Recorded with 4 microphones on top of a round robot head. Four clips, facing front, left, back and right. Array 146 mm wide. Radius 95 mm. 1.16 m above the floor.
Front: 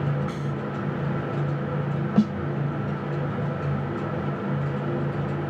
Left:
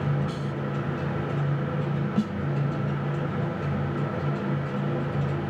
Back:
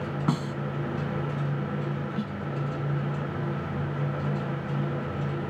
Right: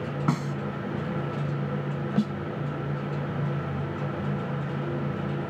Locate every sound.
0.3 s a snare drum: 130° right
2.2 s a snare drum: 10° right